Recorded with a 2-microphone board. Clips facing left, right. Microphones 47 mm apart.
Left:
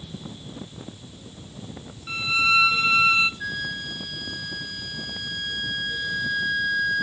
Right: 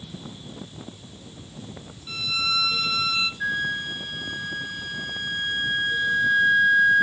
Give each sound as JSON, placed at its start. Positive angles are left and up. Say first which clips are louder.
{"t": 2.1, "sound": "a violin", "louder": "left 6 dB", "side_deg": 30, "distance_m": 0.9}
{"t": 3.4, "sound": "a flute", "louder": "right 4 dB", "side_deg": -25, "distance_m": 0.6}